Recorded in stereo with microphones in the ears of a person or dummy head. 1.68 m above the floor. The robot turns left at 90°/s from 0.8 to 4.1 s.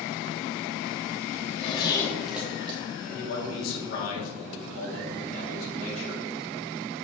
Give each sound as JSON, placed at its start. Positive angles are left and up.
{"t": 1.4, "sound": "a zipper", "side_deg": 45, "distance_m": 1.5}
{"t": 3.0, "sound": "a man speaking", "azimuth_deg": 145, "distance_m": 3.0}